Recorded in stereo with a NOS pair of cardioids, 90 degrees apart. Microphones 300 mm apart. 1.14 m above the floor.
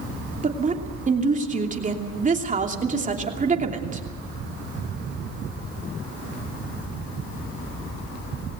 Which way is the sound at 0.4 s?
25° right.